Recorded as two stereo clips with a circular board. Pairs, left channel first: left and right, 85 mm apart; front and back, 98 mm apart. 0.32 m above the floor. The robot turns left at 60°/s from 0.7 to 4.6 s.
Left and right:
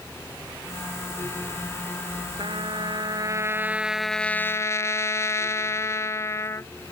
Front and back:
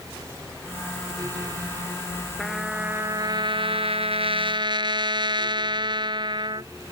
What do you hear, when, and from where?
2.4 s a trumpet: 85° right; by 6.7 s 145° left